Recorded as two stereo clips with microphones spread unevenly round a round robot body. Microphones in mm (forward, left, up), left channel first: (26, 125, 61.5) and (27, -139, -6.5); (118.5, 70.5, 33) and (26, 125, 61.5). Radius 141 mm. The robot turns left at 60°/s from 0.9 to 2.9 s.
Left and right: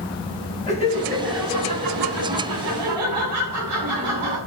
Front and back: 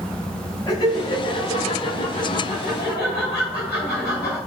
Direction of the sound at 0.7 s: 20° left.